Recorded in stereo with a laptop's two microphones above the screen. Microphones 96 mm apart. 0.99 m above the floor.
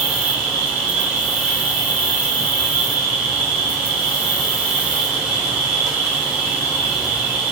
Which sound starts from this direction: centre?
An insect, at 0.0 s.